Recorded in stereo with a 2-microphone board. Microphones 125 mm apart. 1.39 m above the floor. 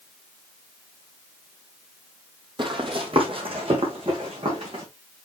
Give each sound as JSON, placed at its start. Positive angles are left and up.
{"t": 2.6, "sound": "running footsteps", "side_deg": -40, "distance_m": 2.0}